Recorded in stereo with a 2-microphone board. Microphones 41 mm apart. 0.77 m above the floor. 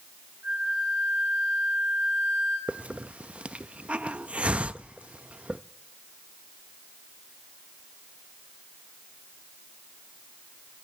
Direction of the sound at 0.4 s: 40° right (ahead or behind).